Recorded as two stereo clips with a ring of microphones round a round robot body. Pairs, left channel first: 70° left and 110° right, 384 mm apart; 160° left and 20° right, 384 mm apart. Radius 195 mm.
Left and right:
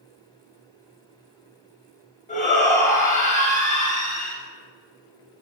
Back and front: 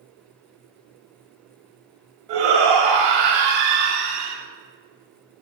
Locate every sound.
2.3 s a shout: 5° right, 3 m